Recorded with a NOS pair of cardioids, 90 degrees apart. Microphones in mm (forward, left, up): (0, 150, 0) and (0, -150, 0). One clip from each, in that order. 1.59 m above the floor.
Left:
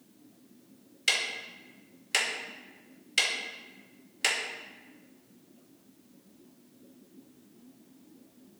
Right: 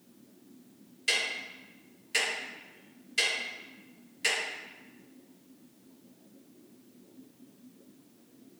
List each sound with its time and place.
1.1 s ticking: 55° left, 1.9 m